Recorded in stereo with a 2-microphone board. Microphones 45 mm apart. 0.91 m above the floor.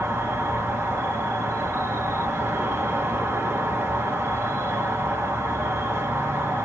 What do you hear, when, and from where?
0.0 s an insect: 60° right (ahead or behind), 1.9 m